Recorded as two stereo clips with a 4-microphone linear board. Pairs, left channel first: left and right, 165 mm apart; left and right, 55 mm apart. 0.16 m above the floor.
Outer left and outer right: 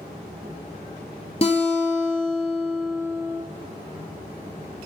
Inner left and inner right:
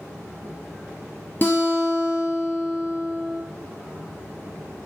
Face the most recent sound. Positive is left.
turn(degrees=40)  # may be behind; listen again after turning